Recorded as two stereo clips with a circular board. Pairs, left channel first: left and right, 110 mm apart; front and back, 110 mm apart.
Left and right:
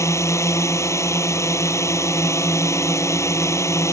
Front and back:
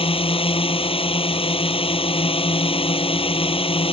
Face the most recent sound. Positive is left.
turn(degrees=30)